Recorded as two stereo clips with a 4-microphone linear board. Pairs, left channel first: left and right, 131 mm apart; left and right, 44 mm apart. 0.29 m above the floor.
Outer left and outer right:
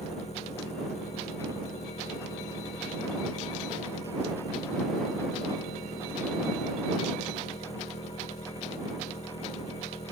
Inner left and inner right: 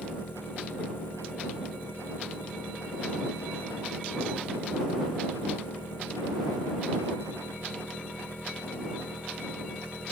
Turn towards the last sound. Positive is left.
turn(degrees=55)  # may be behind; listen again after turning